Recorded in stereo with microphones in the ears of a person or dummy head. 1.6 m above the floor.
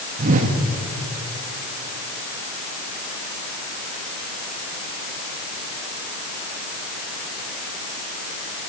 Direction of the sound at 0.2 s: 45° right (ahead or behind).